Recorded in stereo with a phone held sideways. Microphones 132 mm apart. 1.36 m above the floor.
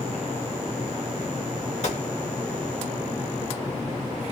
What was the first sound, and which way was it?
A gunshot, 60° left (ahead or behind).